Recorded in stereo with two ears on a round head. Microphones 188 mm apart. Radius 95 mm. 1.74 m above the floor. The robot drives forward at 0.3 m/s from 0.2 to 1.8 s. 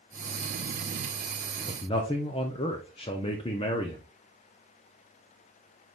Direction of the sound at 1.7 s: 25° left (ahead or behind).